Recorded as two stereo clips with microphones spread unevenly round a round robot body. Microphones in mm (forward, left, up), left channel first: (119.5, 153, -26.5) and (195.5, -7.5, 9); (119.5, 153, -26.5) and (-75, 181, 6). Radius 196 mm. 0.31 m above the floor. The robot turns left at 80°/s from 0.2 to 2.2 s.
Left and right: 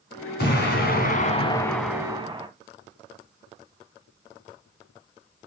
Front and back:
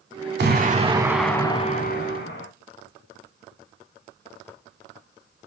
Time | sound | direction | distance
0.4 | an explosion | 145° left | 2.5 m